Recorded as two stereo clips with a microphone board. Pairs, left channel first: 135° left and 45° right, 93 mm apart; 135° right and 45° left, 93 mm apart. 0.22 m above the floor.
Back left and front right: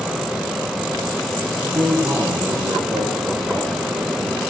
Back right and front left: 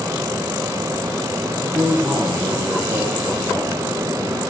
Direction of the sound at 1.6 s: 10° right.